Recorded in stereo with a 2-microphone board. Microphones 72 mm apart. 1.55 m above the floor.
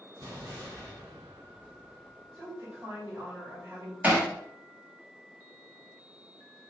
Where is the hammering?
25° right (ahead or behind), 1.1 m.